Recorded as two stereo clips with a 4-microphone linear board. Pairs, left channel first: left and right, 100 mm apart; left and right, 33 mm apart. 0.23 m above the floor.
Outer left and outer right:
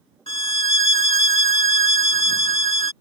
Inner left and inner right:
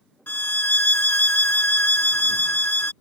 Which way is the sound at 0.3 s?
60° left (ahead or behind).